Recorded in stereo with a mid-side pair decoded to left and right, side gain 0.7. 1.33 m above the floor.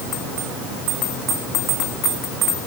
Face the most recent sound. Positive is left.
No sound to turn to.